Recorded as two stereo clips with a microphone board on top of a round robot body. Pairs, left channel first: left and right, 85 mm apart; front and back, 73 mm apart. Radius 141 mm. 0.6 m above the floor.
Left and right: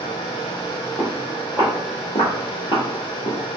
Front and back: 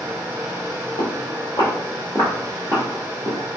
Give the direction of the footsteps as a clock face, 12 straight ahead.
12 o'clock.